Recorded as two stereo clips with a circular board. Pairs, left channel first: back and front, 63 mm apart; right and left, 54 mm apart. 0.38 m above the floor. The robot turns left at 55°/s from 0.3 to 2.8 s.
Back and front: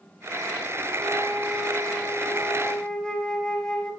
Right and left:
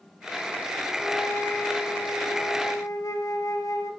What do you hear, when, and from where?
1.0 s a flute: 5° right, 2.5 m; by 3.9 s 105° right, 2.5 m